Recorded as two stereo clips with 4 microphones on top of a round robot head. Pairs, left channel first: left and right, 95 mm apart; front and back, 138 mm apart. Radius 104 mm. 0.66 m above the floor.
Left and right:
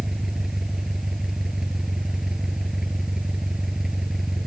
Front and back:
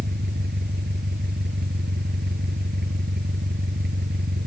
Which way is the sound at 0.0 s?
175° right.